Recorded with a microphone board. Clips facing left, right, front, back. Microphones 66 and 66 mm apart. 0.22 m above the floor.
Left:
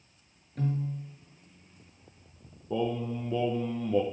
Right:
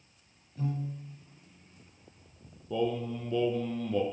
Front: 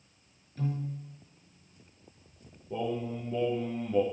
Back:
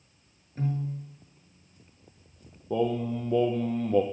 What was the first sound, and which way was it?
A piano, 125° left.